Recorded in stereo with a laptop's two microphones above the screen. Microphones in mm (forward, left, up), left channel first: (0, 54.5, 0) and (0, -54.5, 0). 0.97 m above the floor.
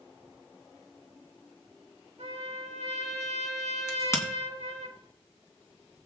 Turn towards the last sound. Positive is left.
turn(degrees=25)  # may be behind; listen again after turning